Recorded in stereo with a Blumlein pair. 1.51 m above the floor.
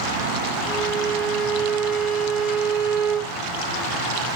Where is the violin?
20° right, 3 m.